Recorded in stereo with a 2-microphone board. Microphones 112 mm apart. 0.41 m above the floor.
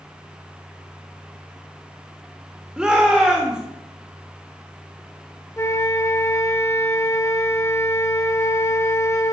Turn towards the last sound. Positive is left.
turn(degrees=25)  # may be behind; listen again after turning